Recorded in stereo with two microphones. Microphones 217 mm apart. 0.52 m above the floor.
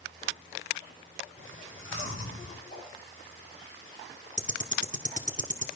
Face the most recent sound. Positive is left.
turn(degrees=-35)  # may be behind; listen again after turning